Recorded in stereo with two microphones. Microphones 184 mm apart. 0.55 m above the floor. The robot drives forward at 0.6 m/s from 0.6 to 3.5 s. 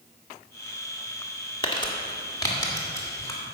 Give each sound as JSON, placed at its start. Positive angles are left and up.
{"t": 1.6, "sound": "crumpling", "side_deg": 25, "distance_m": 1.4}